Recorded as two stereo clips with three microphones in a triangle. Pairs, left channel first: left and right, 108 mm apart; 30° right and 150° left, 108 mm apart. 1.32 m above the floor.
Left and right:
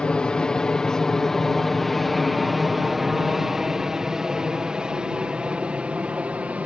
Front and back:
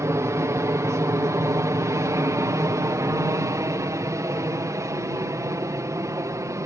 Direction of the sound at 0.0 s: 160° left.